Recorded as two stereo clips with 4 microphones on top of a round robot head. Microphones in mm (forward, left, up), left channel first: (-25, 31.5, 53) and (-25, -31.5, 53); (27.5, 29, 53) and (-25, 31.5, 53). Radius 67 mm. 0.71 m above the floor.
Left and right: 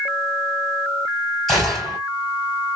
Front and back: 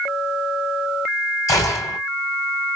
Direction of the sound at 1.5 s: Straight ahead.